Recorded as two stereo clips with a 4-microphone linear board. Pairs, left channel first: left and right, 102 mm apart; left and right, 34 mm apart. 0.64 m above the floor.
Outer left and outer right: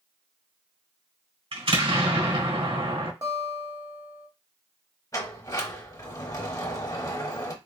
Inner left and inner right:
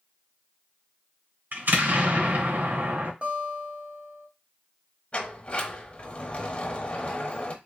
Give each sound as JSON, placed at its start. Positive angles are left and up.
{"t": 1.5, "sound": "an explosion", "side_deg": -70, "distance_m": 1.5}
{"t": 3.2, "sound": "a guitar", "side_deg": -40, "distance_m": 1.5}
{"t": 5.1, "sound": "a sliding door", "side_deg": 35, "distance_m": 0.8}